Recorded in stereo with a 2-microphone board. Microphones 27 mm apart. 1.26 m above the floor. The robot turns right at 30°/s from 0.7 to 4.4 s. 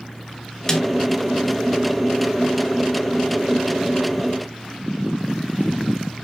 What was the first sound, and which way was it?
A snare drum, 15° left (ahead or behind).